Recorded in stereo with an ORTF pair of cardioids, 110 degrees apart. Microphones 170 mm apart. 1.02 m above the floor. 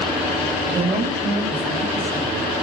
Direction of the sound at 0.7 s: 20° right.